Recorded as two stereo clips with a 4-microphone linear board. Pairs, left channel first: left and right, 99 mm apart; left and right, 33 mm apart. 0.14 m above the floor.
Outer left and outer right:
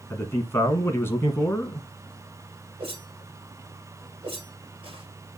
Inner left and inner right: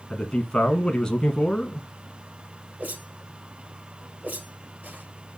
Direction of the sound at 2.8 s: 65° right (ahead or behind).